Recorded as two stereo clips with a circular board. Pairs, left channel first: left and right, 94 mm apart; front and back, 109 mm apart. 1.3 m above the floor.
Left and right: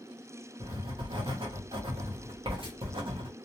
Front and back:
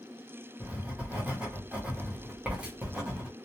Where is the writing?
105° right, 0.8 m.